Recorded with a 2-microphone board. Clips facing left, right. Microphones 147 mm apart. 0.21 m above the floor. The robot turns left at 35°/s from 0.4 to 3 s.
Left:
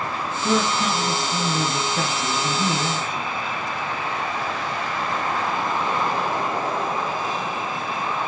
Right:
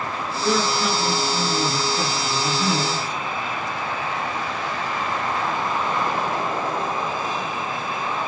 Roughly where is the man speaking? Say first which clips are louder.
Even; behind left.